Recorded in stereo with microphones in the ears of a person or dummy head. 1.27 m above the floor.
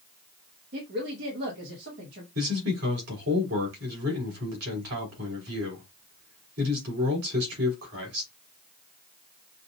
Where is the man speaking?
90° right, 3 m.